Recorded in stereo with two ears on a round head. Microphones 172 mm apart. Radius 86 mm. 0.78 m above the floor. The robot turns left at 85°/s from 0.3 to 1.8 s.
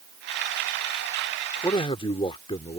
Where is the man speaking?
15° left (ahead or behind); by 2.8 s 30° left (ahead or behind).